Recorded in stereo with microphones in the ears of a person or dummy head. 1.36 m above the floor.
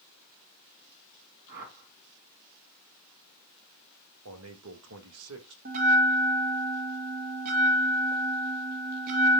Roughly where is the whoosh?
Right.